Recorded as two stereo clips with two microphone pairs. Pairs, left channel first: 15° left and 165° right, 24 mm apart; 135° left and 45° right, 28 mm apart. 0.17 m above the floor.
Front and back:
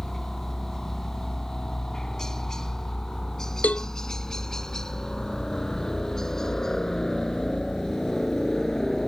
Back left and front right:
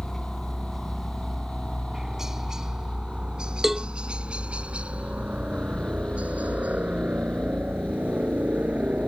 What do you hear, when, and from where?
0.0 s a helicopter: 70° left; by 9.1 s 50° right
3.6 s a cowbell: 35° left